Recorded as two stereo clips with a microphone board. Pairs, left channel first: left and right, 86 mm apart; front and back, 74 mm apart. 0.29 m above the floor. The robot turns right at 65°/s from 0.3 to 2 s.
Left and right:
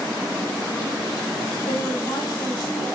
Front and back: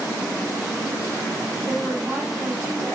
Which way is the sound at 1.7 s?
90° left.